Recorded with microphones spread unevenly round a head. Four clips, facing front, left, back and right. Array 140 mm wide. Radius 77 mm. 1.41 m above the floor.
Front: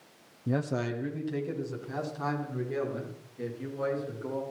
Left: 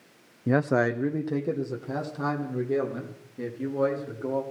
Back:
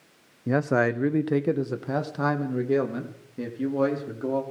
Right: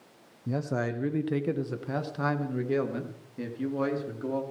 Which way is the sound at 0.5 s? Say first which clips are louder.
Left 7 dB, back 8 dB; 120° left.